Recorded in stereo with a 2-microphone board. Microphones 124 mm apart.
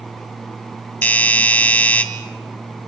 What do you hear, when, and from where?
1.0 s a doorbell: 15° left (ahead or behind), 2 m